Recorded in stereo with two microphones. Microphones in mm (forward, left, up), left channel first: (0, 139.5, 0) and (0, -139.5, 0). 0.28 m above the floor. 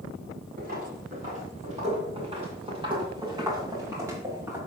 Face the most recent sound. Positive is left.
turn(degrees=-10)  # may be behind; listen again after turning